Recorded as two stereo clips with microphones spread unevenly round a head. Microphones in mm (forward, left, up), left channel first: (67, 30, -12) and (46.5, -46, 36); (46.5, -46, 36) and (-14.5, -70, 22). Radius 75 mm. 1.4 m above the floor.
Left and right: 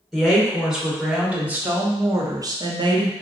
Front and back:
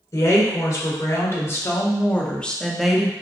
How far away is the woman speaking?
About 1.9 m.